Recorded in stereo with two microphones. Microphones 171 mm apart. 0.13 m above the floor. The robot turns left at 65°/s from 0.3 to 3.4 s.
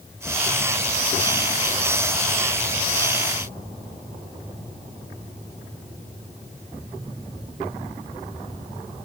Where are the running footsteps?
No running footsteps in this recording.